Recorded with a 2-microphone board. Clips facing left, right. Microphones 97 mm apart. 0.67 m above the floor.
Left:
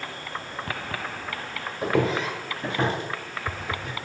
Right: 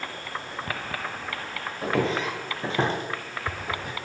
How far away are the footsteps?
About 0.9 m.